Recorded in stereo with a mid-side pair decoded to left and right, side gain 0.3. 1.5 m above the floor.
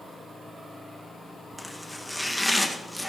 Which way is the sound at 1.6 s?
Straight ahead.